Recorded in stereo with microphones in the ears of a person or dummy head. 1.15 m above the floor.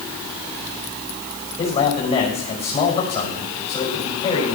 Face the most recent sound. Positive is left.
turn(degrees=30)  # may be behind; listen again after turning